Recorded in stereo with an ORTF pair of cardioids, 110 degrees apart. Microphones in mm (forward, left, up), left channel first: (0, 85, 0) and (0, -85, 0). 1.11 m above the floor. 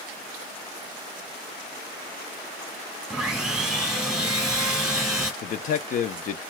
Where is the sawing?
5° right, 1.0 m.